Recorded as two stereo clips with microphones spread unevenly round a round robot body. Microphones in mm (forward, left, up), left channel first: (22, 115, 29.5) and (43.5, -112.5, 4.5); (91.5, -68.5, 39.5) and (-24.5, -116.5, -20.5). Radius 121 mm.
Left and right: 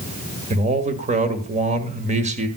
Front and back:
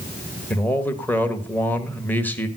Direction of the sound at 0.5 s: 80° right.